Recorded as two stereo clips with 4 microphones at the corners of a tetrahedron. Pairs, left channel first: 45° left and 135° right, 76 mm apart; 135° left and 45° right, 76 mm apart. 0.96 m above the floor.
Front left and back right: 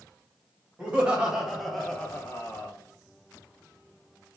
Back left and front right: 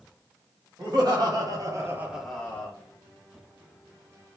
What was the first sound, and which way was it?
Laughter, 60° right.